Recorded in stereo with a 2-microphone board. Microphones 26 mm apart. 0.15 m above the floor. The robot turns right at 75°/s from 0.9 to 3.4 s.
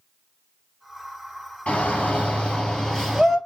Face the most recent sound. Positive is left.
turn(degrees=-165)